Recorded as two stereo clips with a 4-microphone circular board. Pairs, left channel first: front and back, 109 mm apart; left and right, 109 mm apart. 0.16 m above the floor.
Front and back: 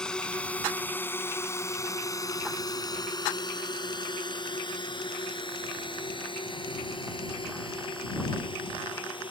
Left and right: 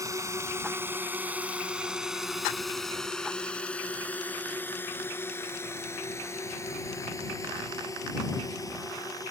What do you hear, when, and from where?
0.0 s a drone: 75° right; by 9.3 s 35° left